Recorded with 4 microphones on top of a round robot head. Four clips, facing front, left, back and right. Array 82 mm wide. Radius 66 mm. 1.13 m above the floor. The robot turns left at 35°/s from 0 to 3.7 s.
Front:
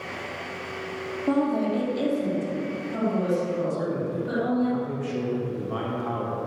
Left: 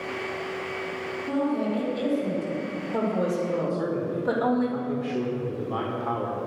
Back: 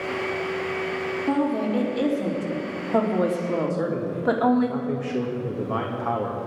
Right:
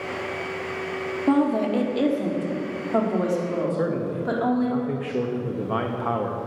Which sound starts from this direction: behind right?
A man speaking, at 3.7 s.